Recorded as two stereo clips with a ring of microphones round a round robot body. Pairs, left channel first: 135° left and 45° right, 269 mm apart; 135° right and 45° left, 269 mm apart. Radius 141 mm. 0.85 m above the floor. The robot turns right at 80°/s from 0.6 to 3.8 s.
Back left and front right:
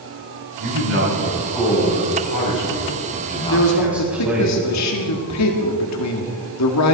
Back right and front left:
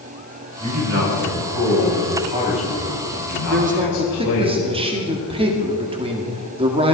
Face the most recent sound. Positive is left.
turn(degrees=115)